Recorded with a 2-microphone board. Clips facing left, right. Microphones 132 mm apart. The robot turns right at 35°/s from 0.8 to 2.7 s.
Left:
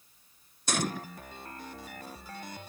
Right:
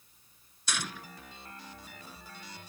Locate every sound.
0.7 s a gunshot: 45° left (ahead or behind)